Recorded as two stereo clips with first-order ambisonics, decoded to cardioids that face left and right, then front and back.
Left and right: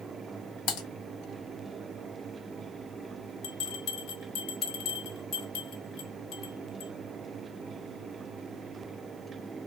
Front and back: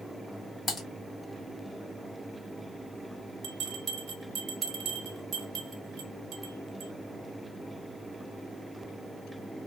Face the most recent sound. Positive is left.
turn(degrees=130)